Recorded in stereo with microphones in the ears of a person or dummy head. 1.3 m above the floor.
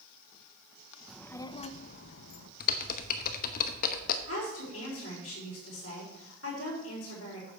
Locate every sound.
1.1 s a child speaking: 5° right (ahead or behind), 0.5 m; by 2.5 s 65° left (ahead or behind), 0.9 m
2.6 s typing on a keyboard: 50° left (ahead or behind), 0.9 m
4.3 s a woman speaking: 80° left, 4 m